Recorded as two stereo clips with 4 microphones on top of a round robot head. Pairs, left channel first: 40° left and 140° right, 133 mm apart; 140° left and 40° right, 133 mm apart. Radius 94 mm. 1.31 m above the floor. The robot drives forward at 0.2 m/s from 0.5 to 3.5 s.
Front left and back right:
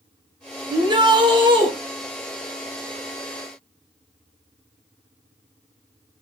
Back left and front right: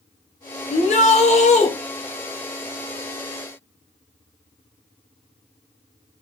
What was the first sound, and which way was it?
A shout, 165° left.